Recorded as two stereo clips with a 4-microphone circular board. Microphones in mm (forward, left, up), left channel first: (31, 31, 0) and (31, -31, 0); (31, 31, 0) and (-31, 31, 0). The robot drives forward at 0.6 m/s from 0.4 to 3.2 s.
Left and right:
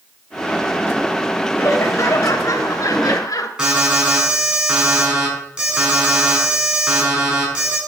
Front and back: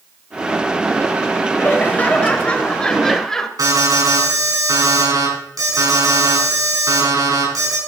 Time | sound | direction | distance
1.6 | laughter | 55° left | 2.5 m
3.6 | an alarm | 165° right | 6 m